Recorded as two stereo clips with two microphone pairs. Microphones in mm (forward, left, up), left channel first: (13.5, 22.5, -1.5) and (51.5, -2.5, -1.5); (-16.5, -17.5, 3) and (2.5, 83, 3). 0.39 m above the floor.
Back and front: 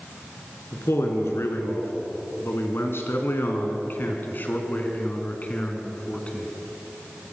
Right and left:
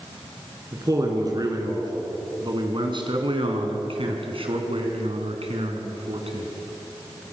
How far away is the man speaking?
About 5 m.